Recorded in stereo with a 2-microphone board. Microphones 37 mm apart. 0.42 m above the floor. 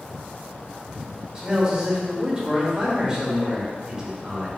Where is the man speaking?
20° right (ahead or behind), 1.4 m.